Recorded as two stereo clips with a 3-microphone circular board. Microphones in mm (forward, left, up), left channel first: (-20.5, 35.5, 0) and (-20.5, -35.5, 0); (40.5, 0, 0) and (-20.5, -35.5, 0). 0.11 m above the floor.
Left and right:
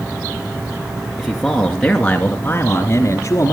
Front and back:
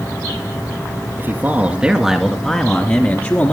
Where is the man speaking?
170° right, 1.8 m; by 3.5 s 65° left, 2 m.